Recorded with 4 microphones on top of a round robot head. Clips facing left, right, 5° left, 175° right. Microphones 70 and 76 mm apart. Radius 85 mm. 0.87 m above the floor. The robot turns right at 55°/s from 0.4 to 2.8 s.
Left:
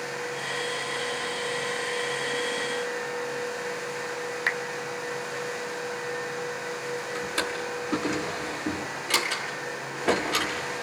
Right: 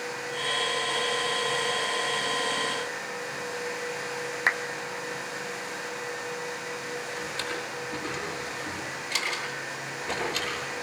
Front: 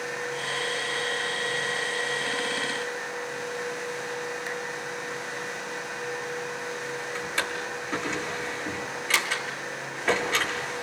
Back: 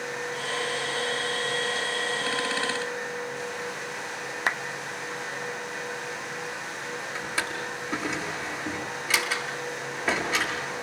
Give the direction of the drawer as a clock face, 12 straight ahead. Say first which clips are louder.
Left 3 dB, even; 9 o'clock.